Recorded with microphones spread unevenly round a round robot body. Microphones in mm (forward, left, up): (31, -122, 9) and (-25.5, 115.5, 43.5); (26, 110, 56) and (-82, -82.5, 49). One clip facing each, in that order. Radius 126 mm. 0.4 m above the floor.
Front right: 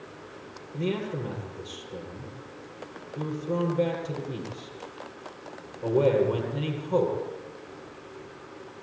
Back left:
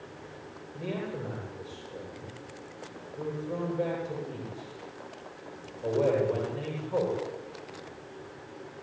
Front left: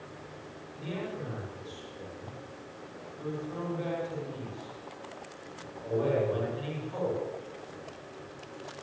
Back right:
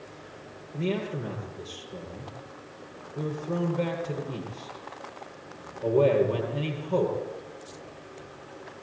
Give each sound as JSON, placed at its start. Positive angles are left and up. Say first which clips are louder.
{"t": 0.7, "sound": "a man speaking", "louder": "front right 5 dB, back right 8 dB", "azimuth_deg": -95, "distance_m": 9.5}